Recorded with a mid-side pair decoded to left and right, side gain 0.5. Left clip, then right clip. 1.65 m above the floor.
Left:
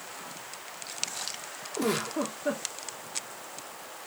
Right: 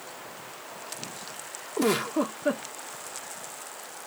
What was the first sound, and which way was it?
A giggle, 30° right.